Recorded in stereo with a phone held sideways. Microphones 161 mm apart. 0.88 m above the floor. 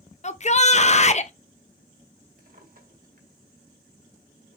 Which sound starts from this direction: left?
A shout, at 0.2 s.